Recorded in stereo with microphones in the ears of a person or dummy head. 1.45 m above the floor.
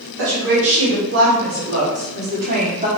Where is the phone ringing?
No phone ringing in this recording.